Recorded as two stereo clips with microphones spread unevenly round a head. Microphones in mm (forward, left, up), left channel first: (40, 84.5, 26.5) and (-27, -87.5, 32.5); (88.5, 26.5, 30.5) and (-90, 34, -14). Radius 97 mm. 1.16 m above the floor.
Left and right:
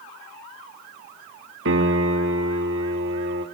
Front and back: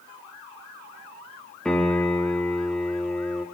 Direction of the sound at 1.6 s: 85° right.